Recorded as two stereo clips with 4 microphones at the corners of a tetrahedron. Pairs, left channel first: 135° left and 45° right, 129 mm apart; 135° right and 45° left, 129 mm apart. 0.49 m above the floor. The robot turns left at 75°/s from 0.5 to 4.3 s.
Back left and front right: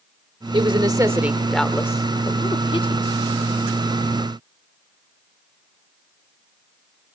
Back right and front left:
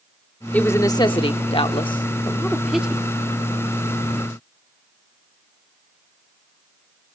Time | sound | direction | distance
0.5 | a woman speaking | 60° right | 0.9 m